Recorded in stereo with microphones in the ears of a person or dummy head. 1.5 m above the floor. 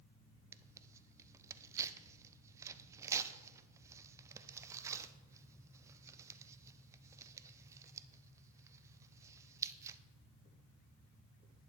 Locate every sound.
0.5 s tearing paper: 20° right (ahead or behind), 0.5 m